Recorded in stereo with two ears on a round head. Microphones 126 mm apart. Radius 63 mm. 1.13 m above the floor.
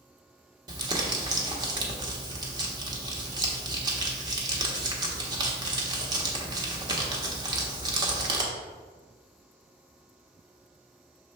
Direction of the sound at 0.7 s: 30° right (ahead or behind).